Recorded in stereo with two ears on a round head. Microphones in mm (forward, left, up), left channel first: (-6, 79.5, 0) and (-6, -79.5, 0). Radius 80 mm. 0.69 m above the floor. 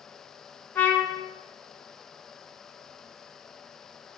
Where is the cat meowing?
No cat meowing in this recording.